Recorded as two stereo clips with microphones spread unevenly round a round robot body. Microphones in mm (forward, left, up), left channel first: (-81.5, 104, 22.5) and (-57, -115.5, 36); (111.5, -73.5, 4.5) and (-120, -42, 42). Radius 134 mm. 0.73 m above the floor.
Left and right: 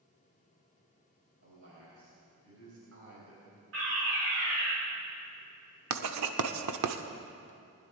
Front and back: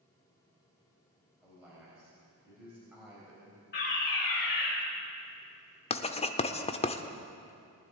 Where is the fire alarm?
50° right, 5 m.